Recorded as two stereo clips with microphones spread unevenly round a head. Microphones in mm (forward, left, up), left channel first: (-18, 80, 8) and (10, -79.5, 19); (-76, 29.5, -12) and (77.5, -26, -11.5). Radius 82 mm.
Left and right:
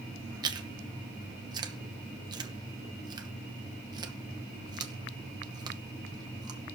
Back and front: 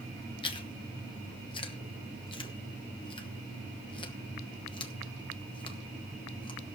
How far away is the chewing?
About 1.1 m.